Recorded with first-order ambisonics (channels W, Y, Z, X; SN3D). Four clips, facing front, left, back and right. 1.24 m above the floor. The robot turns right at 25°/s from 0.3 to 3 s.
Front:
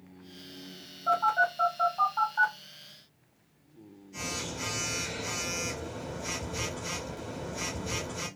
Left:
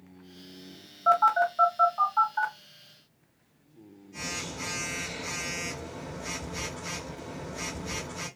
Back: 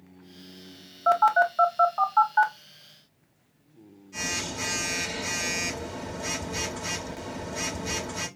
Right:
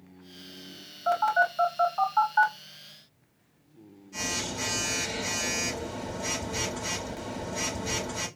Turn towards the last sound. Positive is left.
turn(degrees=-140)